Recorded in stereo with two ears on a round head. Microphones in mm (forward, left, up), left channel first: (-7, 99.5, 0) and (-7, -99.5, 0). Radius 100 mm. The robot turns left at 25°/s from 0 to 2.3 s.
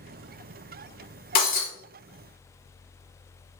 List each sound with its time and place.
1.4 s breaking glass: 40° left (ahead or behind), 3.5 m; by 1.7 s 35° left (ahead or behind), 3.5 m